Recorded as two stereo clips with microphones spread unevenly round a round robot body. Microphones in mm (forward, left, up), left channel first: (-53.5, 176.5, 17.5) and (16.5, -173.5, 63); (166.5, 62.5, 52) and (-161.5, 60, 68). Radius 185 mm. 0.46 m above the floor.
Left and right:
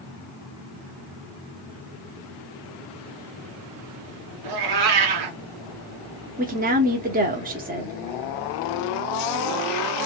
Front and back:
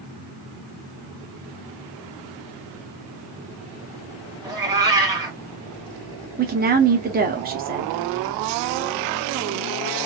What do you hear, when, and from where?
4.4 s a cat meowing: 100° right, 1.1 m
6.4 s a woman speaking: 140° right, 0.8 m